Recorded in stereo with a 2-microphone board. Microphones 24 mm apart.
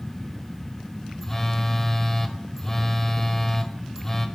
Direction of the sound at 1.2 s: 15° left (ahead or behind).